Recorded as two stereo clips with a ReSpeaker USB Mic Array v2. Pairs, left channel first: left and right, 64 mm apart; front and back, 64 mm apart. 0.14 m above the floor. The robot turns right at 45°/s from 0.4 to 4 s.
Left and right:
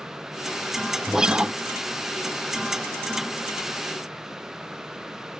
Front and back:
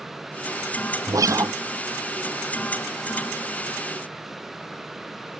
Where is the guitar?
175° right; by 1.5 s 155° right.